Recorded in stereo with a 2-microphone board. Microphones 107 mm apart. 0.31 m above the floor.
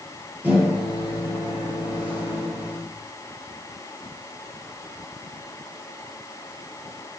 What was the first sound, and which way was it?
A microwave, 15° right (ahead or behind).